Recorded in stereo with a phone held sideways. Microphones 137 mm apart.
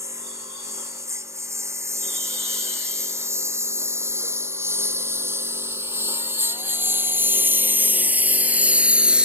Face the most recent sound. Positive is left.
turn(degrees=-5)  # may be behind; listen again after turning